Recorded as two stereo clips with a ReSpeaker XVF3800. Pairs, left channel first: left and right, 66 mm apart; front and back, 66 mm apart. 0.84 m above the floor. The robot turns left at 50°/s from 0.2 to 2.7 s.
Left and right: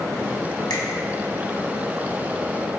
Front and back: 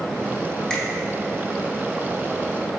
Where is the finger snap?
80° left, 1.0 m; by 0.8 s 75° left, 1.0 m.